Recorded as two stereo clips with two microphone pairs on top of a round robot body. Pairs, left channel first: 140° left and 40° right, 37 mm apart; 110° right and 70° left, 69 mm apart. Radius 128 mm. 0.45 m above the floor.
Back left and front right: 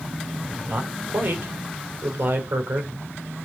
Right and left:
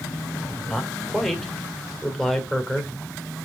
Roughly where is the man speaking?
Ahead right.